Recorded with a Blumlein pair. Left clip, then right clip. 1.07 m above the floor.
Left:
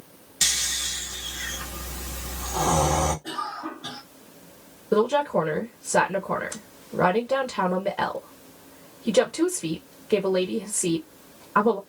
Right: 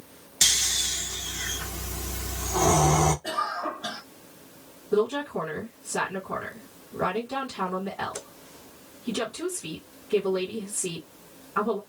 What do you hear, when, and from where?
0.4 s snoring: 10° right, 1.4 m
3.2 s a cough: 20° right, 1.6 m
4.9 s a woman speaking: 40° left, 1.0 m